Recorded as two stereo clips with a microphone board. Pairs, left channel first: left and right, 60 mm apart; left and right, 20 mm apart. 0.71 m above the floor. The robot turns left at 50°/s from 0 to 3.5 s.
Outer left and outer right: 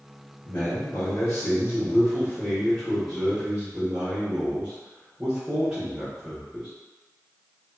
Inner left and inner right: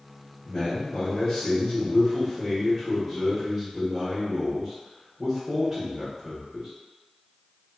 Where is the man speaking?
130° left, 1.1 m; by 6.7 s 20° right, 1.1 m.